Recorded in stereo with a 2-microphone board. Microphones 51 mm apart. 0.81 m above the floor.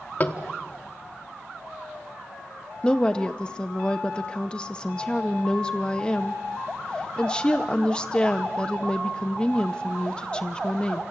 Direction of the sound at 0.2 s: 35° left (ahead or behind).